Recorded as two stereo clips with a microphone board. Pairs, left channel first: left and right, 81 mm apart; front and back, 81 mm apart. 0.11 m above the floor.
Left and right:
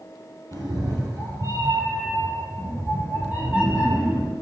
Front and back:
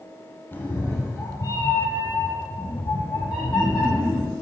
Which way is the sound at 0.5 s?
65° right.